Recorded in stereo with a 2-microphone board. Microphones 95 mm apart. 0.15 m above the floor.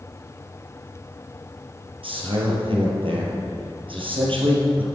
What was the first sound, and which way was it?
A man speaking, 70° right (ahead or behind).